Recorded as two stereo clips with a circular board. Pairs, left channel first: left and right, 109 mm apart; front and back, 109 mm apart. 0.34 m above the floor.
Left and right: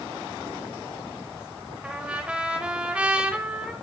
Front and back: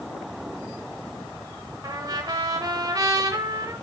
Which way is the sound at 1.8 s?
160° right.